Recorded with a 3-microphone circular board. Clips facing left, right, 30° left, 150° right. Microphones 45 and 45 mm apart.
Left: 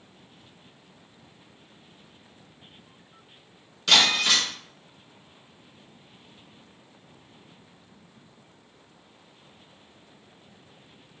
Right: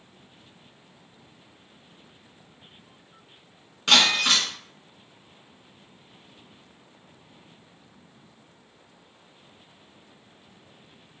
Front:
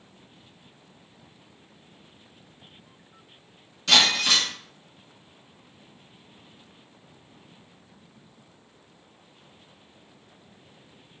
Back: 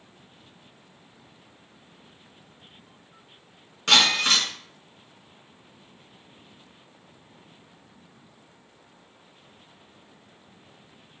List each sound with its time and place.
3.9 s breaking glass: 130° right, 2 m